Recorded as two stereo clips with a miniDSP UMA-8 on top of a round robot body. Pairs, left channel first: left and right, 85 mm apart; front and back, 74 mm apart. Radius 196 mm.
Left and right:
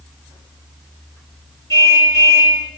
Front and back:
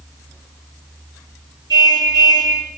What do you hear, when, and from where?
1.7 s a car horn: 145° left, 9.5 m